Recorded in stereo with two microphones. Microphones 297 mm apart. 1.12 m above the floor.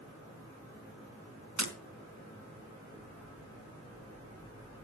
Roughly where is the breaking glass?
Right.